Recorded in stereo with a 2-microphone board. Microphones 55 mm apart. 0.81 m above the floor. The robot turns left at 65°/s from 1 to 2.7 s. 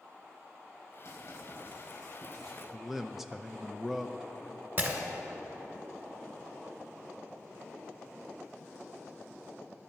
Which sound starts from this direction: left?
Writing, at 1.1 s.